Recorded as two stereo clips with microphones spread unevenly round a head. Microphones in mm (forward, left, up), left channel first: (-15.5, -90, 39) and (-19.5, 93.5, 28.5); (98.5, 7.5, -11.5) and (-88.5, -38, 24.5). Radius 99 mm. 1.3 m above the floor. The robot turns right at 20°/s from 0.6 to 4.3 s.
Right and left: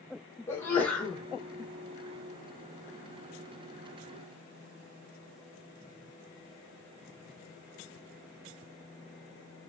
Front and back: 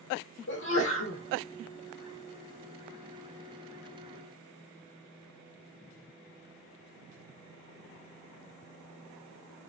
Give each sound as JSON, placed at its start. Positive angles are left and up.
{"t": 0.5, "sound": "a sneeze", "azimuth_deg": -10, "distance_m": 1.3}